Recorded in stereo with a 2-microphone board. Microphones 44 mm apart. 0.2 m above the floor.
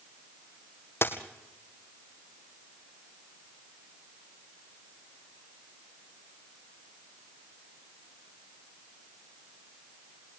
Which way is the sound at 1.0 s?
60° left (ahead or behind).